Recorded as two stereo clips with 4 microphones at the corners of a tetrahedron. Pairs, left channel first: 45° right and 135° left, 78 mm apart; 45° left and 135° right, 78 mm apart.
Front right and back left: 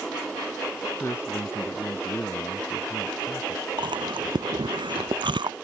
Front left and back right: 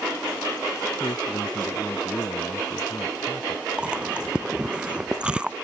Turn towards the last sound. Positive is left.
turn(degrees=150)